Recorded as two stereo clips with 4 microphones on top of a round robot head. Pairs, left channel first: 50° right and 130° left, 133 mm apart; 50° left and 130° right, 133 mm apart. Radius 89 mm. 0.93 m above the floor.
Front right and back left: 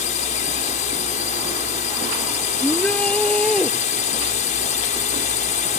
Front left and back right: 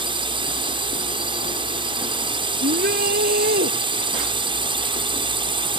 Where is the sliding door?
I don't hear a sliding door.